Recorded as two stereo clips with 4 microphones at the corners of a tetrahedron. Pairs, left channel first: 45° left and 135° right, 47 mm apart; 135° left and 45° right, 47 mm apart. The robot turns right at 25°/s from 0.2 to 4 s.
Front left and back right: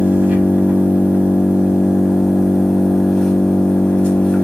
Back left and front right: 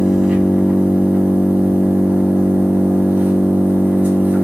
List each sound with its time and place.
0.0 s an engine running: 110° right, 0.9 m; by 4.4 s 15° right, 0.9 m